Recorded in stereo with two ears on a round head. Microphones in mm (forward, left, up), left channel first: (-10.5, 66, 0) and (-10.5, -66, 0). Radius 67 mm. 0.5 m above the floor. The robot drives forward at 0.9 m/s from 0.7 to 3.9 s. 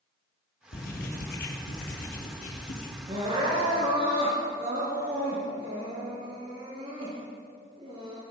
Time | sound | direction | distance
0.7 | writing | 75° left (ahead or behind) | 7 m
3.1 | crying | 40° right (ahead or behind) | 6 m